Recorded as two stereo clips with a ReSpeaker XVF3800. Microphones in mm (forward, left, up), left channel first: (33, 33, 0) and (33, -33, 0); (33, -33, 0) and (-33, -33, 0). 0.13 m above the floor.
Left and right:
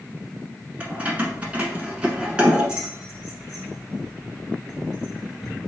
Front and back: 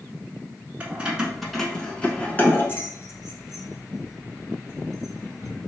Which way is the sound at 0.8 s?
135° right.